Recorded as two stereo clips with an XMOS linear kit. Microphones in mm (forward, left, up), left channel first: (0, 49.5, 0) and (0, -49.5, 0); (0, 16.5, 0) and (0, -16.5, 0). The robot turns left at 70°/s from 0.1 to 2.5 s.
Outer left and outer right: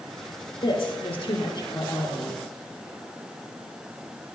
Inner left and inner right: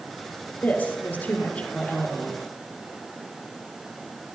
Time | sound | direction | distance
0.6 | a woman speaking | 125° left | 3.5 m